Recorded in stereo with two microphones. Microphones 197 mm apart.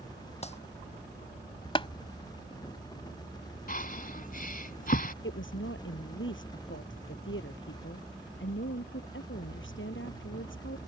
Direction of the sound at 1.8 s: 25° left (ahead or behind).